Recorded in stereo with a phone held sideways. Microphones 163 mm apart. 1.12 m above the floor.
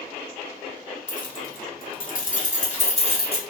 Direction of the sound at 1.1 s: 50° left (ahead or behind).